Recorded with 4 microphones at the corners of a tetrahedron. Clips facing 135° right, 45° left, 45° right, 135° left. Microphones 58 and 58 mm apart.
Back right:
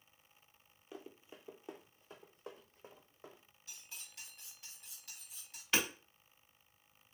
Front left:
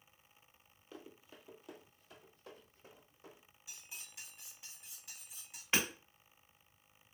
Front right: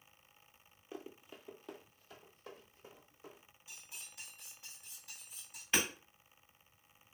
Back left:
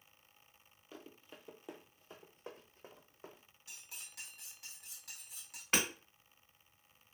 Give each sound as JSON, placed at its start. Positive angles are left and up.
{"t": 0.9, "sound": "running footsteps", "azimuth_deg": -80, "distance_m": 0.7}
{"t": 3.7, "sound": "cutlery clinking", "azimuth_deg": 120, "distance_m": 0.9}
{"t": 5.7, "sound": "hammering", "azimuth_deg": 115, "distance_m": 1.6}